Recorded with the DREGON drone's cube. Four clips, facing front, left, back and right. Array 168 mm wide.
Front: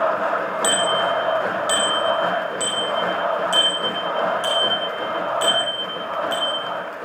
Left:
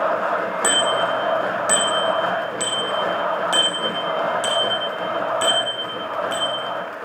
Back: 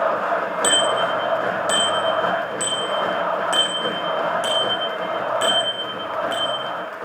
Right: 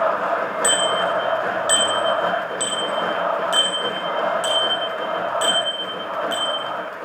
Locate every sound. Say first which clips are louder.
0.6 s a bicycle bell: even, even; 115° left, 5 m; by 6.6 s 160° left, 9 m